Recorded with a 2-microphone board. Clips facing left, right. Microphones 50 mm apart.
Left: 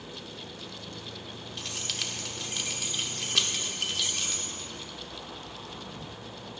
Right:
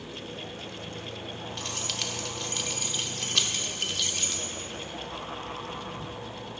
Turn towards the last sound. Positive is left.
turn(degrees=0)  # may be behind; listen again after turning